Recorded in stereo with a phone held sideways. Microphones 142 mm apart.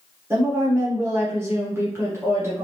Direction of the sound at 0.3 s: 20° right (ahead or behind).